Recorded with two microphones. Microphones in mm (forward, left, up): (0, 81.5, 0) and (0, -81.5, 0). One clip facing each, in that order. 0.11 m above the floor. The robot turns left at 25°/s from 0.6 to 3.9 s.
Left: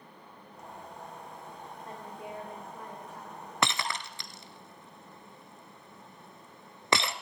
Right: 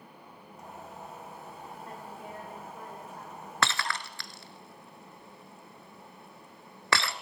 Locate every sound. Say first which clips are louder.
1.9 s a woman speaking: left 3 dB; 30° left, 9 m; by 3.5 s 10° right, 9 m
3.6 s breaking glass: even; 20° left (ahead or behind), 0.7 m